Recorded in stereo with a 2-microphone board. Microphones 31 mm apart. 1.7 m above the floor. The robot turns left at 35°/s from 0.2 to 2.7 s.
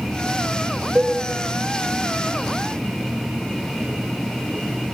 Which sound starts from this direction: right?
A cowbell, at 0.9 s.